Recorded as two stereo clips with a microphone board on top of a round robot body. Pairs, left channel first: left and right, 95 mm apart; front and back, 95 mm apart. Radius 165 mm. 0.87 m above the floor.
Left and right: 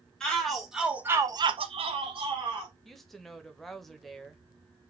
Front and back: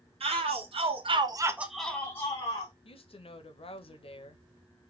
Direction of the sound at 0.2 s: 175° left.